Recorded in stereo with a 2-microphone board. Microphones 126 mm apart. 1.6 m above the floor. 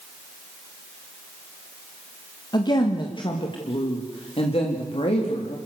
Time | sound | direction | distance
2.5 | a woman speaking | 35° left (ahead or behind) | 1.9 m